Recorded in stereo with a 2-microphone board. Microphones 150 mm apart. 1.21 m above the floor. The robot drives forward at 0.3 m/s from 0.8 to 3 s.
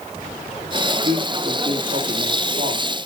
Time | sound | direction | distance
1.0 | a man speaking | 65° right (ahead or behind) | 2.5 m